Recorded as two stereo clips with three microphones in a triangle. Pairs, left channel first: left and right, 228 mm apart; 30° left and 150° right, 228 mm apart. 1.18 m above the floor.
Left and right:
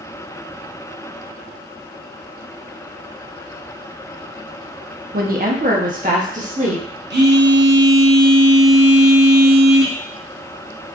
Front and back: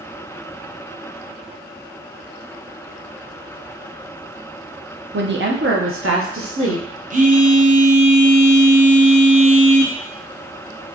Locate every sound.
5.1 s a woman speaking: 125° right, 0.7 m; by 6.8 s 150° right, 1.4 m
7.1 s a phone buzzing: 105° right, 0.7 m